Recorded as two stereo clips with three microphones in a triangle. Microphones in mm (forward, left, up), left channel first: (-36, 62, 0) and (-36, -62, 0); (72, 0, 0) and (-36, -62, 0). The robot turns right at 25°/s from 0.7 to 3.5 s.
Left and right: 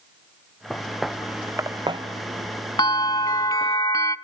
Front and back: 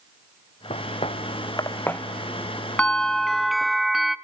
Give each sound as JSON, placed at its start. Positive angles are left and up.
{"t": 0.7, "sound": "footsteps", "azimuth_deg": 0, "distance_m": 1.6}
{"t": 2.8, "sound": "a bell", "azimuth_deg": 105, "distance_m": 0.7}